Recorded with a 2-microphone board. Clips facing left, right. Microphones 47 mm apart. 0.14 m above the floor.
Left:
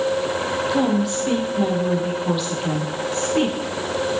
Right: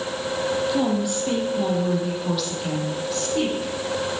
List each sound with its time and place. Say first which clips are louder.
0.7 s a woman speaking: left 3 dB; 5° left (ahead or behind), 3.5 m; by 3.7 s 25° left (ahead or behind), 5.5 m